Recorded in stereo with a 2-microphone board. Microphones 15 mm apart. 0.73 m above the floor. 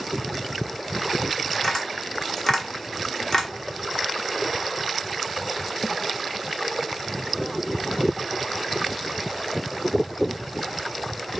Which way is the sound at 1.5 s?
30° left (ahead or behind).